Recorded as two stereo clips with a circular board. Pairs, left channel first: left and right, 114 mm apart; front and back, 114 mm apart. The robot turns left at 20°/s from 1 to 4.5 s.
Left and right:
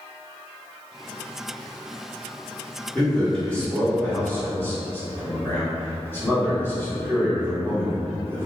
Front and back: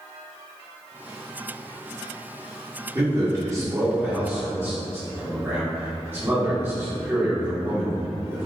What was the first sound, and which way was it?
A man speaking, 170° left.